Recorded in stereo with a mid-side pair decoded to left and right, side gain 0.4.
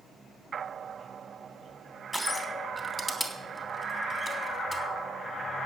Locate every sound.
2.1 s crushing: 5° right, 3.5 m